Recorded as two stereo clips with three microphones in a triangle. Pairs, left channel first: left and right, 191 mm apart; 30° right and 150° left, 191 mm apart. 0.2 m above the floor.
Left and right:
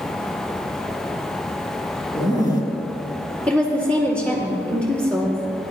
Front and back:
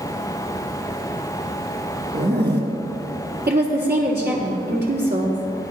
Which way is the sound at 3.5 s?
175° left.